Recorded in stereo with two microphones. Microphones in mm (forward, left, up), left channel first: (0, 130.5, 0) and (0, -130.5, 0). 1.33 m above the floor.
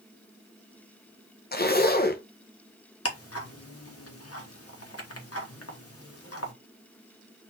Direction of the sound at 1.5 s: 35° left (ahead or behind).